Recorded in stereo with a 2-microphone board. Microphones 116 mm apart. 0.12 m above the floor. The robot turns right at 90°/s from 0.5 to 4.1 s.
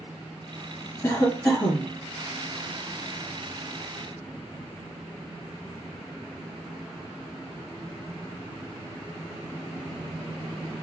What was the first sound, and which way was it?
A cough, 25° left (ahead or behind).